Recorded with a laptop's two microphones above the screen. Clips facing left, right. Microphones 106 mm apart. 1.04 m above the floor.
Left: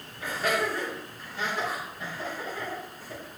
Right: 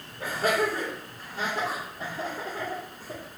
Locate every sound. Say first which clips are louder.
0.2 s laughter: right 2 dB; 55° right (ahead or behind), 3.5 m; by 3.2 s 40° right (ahead or behind), 2 m